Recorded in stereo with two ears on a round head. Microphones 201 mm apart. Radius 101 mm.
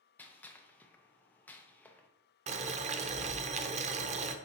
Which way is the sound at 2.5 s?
30° right (ahead or behind).